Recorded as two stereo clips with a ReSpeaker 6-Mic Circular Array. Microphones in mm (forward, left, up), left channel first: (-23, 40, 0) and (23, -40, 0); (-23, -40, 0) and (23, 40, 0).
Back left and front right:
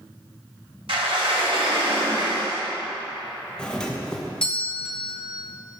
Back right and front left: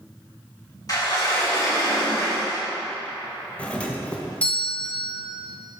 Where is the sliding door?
70° right, 2.5 m.